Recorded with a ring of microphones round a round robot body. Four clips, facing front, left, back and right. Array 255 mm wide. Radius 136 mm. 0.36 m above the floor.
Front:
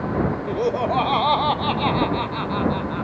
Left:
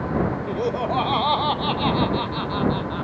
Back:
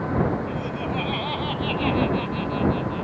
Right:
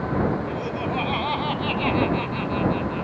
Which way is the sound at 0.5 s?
30° left.